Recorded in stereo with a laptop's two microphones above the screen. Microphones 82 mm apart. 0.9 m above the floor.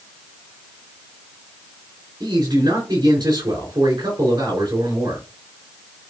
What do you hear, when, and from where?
2.2 s a man speaking: 55° right (ahead or behind), 3 m